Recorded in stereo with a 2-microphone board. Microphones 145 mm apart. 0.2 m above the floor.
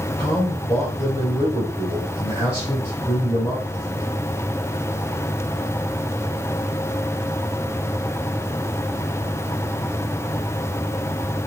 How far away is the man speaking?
About 4.5 m.